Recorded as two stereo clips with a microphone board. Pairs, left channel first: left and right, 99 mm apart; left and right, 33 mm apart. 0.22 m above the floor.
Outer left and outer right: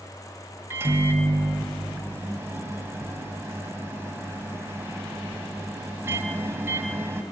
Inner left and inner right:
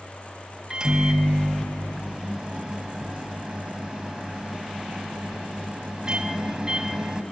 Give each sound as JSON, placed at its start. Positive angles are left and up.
{"t": 0.7, "sound": "a microwave", "side_deg": -25, "distance_m": 0.8}